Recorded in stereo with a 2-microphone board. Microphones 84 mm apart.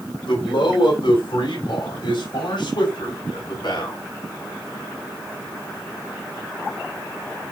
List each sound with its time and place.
0.3 s a man speaking: 65° left (ahead or behind), 4.5 m; by 4.0 s 55° left (ahead or behind), 6.5 m